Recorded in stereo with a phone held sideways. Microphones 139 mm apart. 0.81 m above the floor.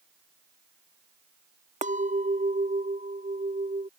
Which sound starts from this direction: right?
A clink, at 1.8 s.